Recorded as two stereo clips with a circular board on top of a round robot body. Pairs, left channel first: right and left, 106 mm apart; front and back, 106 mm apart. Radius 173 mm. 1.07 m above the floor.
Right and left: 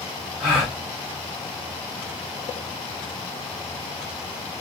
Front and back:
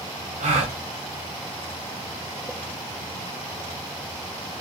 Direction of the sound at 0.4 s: 165° left.